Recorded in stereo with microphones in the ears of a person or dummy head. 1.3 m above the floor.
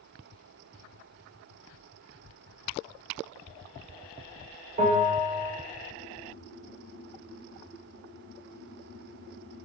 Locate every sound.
4.8 s a bell: 50° right (ahead or behind), 3 m